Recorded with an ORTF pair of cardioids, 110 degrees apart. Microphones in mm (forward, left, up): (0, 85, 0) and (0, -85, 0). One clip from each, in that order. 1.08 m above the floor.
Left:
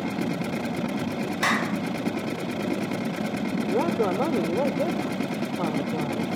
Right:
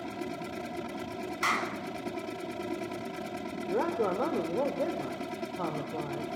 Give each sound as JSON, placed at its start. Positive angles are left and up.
{"t": 0.0, "sound": "a machine running", "azimuth_deg": 65, "distance_m": 0.8}
{"t": 1.4, "sound": "a clap", "azimuth_deg": 50, "distance_m": 5.5}
{"t": 3.7, "sound": "a man speaking", "azimuth_deg": 35, "distance_m": 4.0}